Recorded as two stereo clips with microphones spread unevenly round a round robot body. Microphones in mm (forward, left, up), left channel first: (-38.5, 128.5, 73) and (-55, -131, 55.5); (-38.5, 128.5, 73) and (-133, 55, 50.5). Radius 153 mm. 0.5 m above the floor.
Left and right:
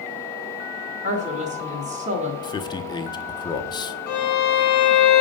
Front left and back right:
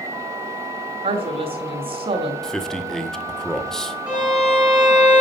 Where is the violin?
135° left, 4.5 m.